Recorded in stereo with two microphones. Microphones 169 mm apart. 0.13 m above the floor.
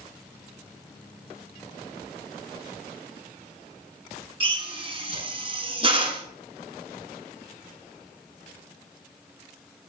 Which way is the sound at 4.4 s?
35° right (ahead or behind).